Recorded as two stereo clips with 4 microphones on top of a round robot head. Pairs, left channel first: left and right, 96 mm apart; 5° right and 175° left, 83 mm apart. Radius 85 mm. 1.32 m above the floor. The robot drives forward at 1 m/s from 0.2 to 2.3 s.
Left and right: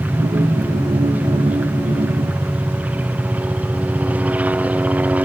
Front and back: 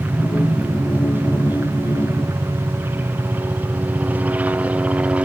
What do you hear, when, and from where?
0.0 s a helicopter: 140° right